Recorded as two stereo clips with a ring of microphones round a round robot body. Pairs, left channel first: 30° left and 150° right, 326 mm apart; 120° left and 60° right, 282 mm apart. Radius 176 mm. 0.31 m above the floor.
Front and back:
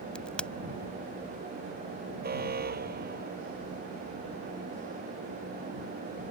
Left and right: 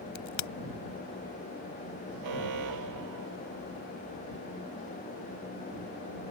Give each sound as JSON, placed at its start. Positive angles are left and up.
{"t": 0.1, "sound": "a crack", "azimuth_deg": 115}
{"t": 2.2, "sound": "an alarm", "azimuth_deg": -85}